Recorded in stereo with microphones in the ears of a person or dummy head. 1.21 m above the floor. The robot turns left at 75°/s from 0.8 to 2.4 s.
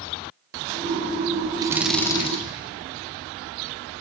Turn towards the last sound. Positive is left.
turn(degrees=145)